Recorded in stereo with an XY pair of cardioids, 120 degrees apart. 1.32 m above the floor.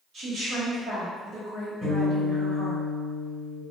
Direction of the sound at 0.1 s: 50° right.